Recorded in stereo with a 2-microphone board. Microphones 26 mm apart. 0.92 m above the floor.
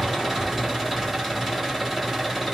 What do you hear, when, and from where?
0.0 s an engine running: 15° right (ahead or behind), 5 m